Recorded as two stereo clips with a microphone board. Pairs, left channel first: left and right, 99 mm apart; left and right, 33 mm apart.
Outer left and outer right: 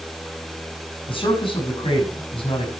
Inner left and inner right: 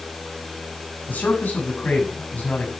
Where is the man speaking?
60° left (ahead or behind), 6.5 m.